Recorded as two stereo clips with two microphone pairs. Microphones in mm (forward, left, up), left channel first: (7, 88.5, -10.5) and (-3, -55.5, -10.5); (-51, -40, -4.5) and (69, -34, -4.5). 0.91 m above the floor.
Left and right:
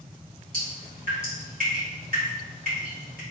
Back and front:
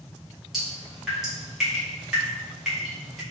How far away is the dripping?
About 1.8 m.